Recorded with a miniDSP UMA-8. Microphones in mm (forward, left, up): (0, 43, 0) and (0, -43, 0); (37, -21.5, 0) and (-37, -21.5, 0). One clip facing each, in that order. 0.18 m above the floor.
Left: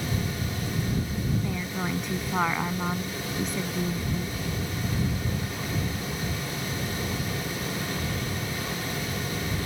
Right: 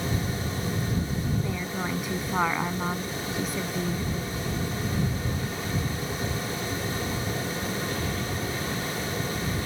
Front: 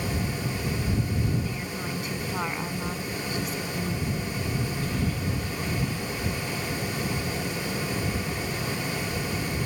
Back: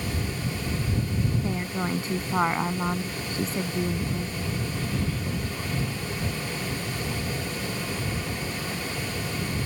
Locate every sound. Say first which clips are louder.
1.4 s a woman speaking: even, back 4 dB; 175° right